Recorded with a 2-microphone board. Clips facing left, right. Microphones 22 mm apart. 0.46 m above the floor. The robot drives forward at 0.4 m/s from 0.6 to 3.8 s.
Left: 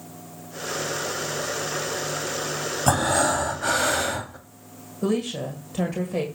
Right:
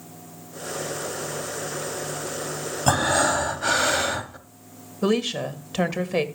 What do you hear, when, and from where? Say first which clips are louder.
2.9 s breathing: right 1 dB; 20° right (ahead or behind), 2.0 m; by 4.4 s 25° right (ahead or behind), 1.6 m
5.0 s a woman speaking: right 2 dB; 60° right (ahead or behind), 1.8 m